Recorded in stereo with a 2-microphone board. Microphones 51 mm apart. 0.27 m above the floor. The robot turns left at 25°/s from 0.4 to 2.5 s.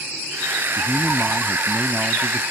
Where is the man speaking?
165° right; by 2.4 s 150° left.